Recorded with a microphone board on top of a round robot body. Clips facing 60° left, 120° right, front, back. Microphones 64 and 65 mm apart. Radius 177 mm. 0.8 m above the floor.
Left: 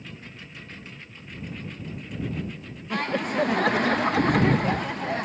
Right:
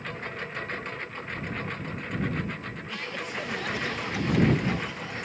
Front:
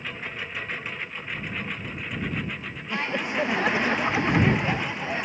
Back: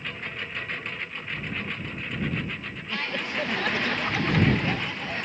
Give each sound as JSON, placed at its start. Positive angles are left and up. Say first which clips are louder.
{"t": 0.0, "sound": "a lawn mower", "louder": "right 8 dB, front 1 dB", "azimuth_deg": -85}
{"t": 2.9, "sound": "laughter", "louder": "left 10 dB, front 3 dB", "azimuth_deg": 65}